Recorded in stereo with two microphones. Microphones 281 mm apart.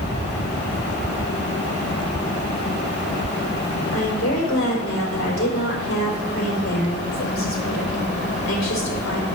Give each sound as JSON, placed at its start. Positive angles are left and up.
{"t": 3.9, "sound": "a woman speaking", "side_deg": 50, "distance_m": 4.0}